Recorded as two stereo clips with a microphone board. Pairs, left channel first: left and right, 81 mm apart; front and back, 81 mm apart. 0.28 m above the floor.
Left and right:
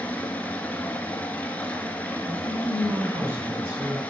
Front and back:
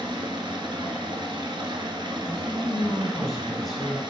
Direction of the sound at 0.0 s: 160° left.